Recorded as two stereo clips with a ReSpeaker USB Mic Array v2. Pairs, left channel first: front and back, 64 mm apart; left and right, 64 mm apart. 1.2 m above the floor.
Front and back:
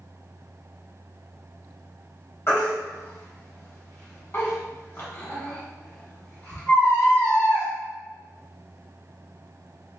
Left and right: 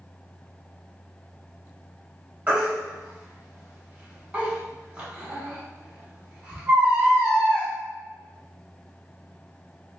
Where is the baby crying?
25° right, 1.1 m.